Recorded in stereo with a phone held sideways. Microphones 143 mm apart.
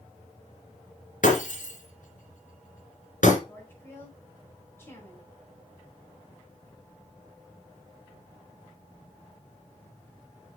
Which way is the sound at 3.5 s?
15° left (ahead or behind).